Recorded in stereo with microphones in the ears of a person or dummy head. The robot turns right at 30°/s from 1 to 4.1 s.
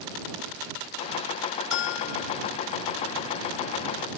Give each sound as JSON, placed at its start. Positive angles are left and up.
{"t": 1.7, "sound": "a bell", "side_deg": 70}